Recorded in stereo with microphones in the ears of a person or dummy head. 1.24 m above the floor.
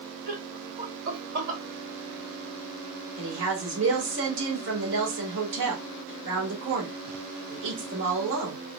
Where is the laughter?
50° right (ahead or behind), 2 m; by 1.6 s 65° right (ahead or behind), 2.5 m.